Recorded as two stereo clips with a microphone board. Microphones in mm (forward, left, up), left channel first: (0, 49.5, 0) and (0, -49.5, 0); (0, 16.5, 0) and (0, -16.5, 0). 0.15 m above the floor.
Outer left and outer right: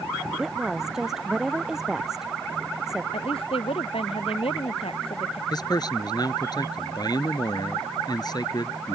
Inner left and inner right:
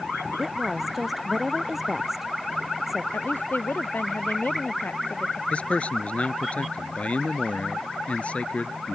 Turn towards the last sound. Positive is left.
turn(degrees=40)  # may be behind; listen again after turning